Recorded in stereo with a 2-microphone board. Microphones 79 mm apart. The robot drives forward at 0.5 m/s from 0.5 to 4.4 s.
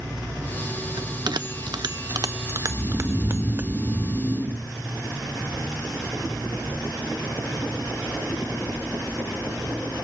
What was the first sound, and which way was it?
A bell, 65° right (ahead or behind).